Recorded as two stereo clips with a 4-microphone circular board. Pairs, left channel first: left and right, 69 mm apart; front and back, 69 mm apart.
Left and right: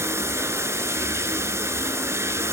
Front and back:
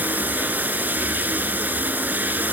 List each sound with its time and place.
0.0 s running water: 125° right, 0.9 m